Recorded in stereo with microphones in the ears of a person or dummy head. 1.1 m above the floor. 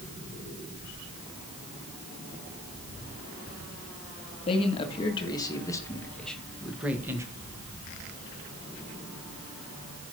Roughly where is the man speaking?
Left.